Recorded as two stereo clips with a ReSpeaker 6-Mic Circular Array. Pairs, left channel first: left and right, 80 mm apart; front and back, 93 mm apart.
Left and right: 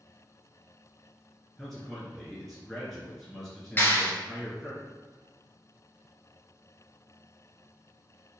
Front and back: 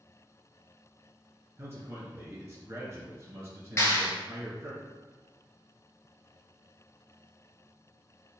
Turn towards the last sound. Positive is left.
turn(degrees=40)